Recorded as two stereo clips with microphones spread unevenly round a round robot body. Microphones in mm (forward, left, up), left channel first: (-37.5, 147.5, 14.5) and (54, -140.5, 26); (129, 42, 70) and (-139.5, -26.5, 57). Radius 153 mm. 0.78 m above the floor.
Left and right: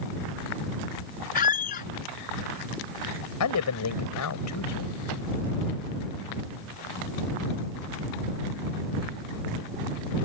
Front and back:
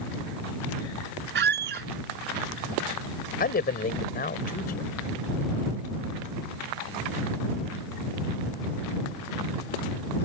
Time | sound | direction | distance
1.4 | a squeak | 155° left | ?
3.4 | a man speaking | 75° left | ?